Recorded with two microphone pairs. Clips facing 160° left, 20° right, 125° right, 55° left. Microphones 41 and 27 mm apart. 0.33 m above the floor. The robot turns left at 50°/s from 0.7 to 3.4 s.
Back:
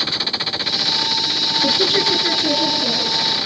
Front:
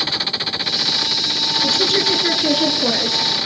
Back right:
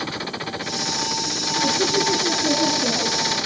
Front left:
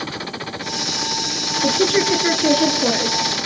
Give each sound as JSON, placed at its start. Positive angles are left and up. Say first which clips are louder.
{"t": 1.6, "sound": "a woman speaking", "louder": "back 1 dB, front left 4 dB", "azimuth_deg": 90, "distance_m": 4.0}